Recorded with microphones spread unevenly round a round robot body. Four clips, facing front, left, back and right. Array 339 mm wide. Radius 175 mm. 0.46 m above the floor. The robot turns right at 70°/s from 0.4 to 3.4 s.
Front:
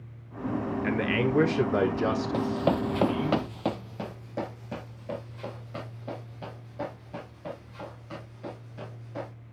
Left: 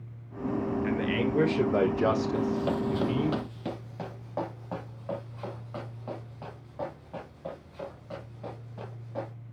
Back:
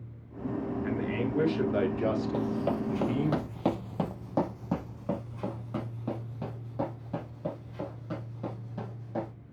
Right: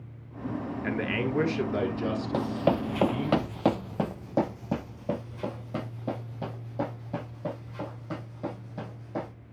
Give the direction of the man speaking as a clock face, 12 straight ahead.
1 o'clock.